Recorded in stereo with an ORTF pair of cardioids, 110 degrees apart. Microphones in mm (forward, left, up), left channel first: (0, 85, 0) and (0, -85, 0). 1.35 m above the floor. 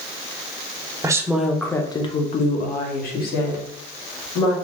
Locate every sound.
1.0 s a woman speaking: 20° right, 0.7 m; by 4.5 s 75° left, 1.8 m